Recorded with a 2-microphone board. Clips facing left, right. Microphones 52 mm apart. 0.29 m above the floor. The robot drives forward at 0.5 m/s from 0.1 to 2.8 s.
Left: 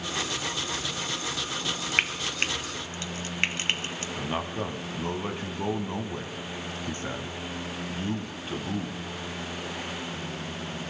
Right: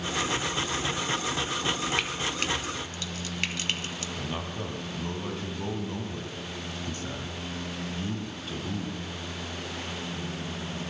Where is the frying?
45° left (ahead or behind), 0.7 m; by 4.1 s 35° left (ahead or behind), 1.0 m.